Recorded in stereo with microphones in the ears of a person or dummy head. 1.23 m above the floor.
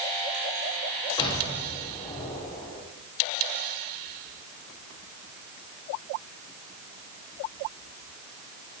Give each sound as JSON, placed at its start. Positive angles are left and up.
{"t": 1.2, "sound": "an explosion", "side_deg": 35, "distance_m": 3.5}